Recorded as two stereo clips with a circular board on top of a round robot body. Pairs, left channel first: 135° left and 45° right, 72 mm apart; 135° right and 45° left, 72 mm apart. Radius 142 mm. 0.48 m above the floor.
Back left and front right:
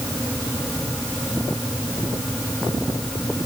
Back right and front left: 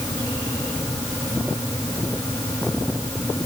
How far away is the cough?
I don't hear a cough.